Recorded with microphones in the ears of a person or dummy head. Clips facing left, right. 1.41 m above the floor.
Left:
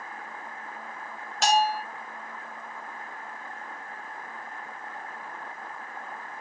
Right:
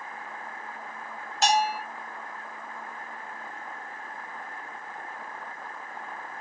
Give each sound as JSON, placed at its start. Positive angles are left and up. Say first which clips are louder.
{"t": 1.4, "sound": "a bell", "louder": "left 1 dB", "side_deg": 65, "distance_m": 1.0}